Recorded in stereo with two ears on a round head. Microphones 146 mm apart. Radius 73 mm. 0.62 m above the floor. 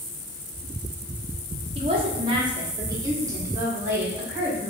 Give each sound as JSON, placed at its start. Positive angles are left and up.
{"t": 1.8, "sound": "a woman speaking", "side_deg": -35, "distance_m": 0.9}